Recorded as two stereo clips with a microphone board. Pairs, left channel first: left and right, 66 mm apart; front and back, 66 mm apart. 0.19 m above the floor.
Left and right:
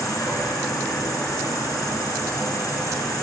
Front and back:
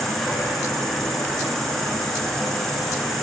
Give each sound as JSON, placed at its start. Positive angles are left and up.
{"t": 0.0, "sound": "an insect", "azimuth_deg": 85, "distance_m": 1.3}